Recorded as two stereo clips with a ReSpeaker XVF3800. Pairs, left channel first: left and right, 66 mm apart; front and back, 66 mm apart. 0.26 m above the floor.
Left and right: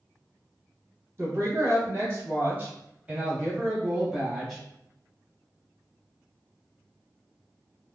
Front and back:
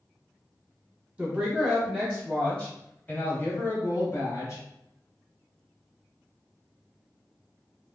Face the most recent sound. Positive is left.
turn(degrees=-5)